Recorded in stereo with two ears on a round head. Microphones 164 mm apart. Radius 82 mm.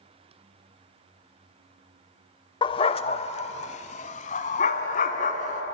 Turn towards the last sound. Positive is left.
turn(degrees=45)  # may be behind; listen again after turning